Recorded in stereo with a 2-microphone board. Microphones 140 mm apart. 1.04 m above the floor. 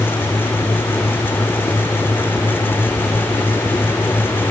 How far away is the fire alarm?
No fire alarm in this recording.